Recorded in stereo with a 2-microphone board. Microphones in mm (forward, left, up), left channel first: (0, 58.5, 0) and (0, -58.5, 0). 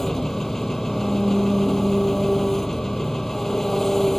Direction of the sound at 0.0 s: 5° left (ahead or behind).